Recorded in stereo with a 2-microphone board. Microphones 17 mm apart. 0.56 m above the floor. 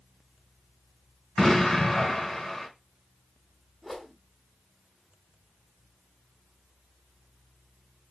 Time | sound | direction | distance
1.4 | an explosion | 30° left (ahead or behind) | 1.9 m
3.8 | a whoosh | 10° left (ahead or behind) | 1.1 m